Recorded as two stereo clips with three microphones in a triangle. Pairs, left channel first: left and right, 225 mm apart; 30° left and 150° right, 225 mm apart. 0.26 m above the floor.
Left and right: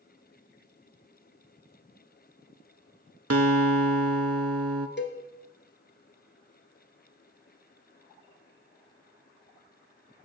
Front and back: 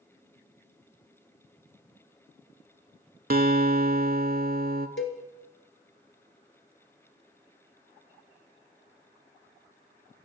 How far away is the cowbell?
About 1.0 m.